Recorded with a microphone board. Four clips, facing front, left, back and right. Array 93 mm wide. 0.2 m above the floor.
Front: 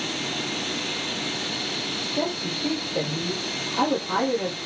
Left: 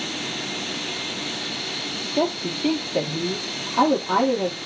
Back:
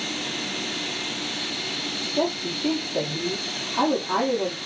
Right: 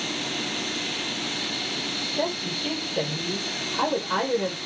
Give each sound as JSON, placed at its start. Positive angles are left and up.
{"t": 2.2, "sound": "a woman speaking", "azimuth_deg": 95, "distance_m": 6.5}